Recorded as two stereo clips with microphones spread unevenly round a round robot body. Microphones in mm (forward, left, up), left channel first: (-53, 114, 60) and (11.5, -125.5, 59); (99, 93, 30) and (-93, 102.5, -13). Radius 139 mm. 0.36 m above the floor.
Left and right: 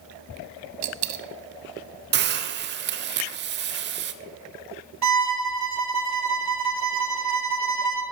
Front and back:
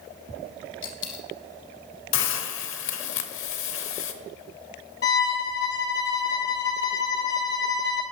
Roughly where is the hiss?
Ahead right.